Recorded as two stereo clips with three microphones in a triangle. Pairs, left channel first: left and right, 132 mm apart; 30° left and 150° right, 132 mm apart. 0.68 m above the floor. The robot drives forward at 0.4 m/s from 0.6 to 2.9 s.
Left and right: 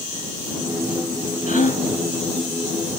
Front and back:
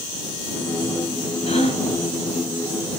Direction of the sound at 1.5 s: 75° left.